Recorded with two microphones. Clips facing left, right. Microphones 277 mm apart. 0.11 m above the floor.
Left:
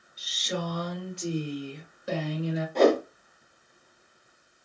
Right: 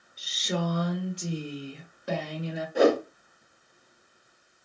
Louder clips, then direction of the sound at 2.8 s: Even; 10° right (ahead or behind).